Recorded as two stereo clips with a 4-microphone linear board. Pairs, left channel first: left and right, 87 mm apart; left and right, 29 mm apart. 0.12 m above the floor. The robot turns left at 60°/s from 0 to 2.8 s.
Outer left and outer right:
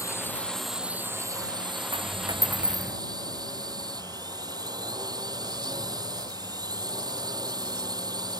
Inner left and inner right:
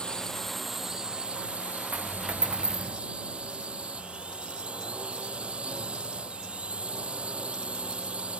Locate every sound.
0.0 s a drone: 40° left; by 8.4 s 130° right
1.9 s a dropped coin: 110° right; by 3.0 s 165° right